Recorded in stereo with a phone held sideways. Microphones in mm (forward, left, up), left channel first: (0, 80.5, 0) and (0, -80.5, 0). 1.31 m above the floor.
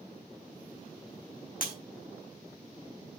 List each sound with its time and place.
1.6 s breaking glass: 60° left (ahead or behind), 1.7 m